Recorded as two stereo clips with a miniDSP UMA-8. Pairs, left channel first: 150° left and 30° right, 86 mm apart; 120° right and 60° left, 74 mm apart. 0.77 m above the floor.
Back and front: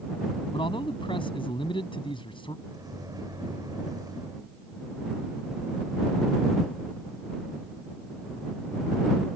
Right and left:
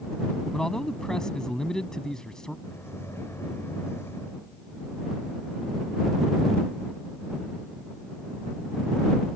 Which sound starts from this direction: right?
A microwave, at 2.6 s.